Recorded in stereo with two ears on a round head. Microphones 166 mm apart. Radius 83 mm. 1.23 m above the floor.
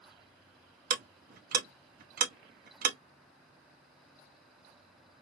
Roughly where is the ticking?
Right.